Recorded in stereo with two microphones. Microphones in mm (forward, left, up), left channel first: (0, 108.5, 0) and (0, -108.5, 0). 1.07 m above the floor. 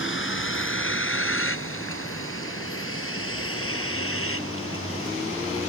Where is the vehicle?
65° left (ahead or behind); by 5.7 s 80° left.